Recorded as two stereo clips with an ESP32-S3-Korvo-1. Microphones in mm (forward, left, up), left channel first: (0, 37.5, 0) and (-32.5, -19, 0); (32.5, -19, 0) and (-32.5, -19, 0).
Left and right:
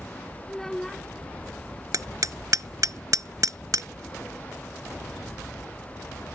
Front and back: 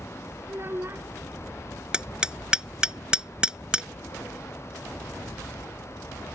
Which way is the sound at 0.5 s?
145° left.